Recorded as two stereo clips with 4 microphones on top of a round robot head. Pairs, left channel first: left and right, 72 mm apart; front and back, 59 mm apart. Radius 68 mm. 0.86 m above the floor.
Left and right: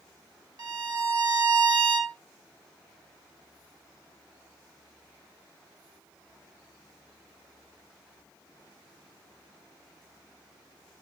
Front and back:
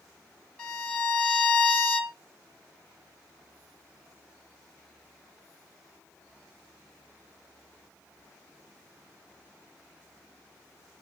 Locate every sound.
0.6 s a violin: 70° right, 1.9 m